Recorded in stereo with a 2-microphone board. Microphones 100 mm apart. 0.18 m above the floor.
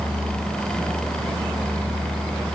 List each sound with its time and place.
Only background noise.